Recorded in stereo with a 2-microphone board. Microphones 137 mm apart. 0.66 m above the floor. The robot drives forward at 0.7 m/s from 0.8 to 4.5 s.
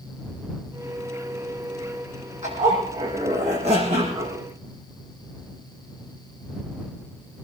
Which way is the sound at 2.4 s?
60° right (ahead or behind).